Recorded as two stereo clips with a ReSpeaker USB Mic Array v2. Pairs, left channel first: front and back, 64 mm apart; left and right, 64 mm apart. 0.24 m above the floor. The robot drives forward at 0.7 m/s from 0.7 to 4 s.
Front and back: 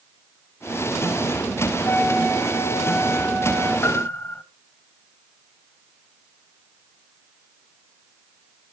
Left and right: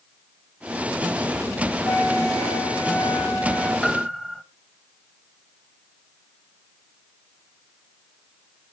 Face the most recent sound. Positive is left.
turn(degrees=15)